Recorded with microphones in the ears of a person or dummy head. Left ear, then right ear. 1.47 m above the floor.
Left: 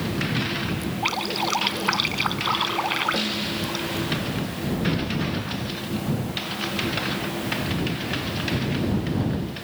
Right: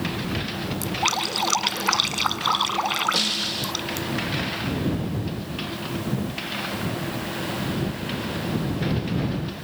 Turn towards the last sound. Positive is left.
turn(degrees=-35)  # may be behind; listen again after turning